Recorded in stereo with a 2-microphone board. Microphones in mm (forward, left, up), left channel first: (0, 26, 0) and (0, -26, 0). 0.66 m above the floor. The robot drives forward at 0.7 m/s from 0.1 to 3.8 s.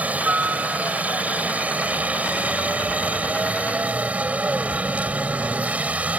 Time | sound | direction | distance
0.0 | a helicopter | 25° right (ahead or behind) | ?